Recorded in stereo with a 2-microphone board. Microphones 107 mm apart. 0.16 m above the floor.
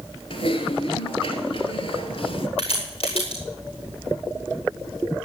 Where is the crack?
60° left (ahead or behind), 6.5 m.